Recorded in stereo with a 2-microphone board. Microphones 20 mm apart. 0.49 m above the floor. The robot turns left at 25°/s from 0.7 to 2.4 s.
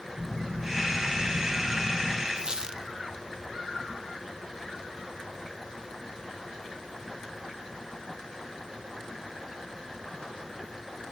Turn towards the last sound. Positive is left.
turn(degrees=-40)  # may be behind; listen again after turning